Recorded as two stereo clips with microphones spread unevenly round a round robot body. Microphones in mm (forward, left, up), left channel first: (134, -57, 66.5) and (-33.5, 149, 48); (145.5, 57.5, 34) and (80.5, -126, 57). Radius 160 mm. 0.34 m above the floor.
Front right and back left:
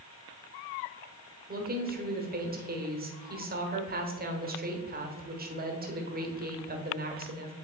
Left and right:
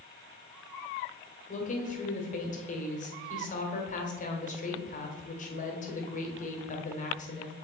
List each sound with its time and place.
1.5 s a woman speaking: 90° left, 1.4 m